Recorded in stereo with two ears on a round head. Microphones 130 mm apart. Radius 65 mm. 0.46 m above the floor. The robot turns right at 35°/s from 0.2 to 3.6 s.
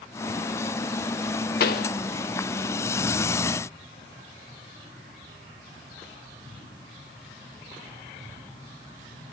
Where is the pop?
70° left (ahead or behind), 0.5 m; by 1.9 s 60° left (ahead or behind), 0.5 m.